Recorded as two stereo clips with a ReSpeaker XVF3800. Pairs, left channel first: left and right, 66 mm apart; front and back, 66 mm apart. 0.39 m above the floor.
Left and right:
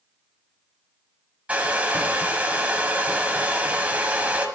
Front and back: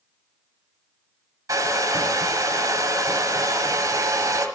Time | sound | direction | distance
1.5 | a hair dryer | 155° right | 1.4 m